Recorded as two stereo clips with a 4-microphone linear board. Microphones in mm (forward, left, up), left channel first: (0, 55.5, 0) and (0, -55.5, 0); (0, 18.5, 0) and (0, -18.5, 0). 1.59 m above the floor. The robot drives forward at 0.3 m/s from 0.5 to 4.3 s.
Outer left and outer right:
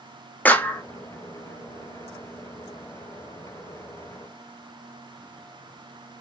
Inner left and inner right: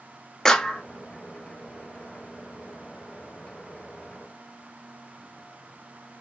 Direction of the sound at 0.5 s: 15° left (ahead or behind).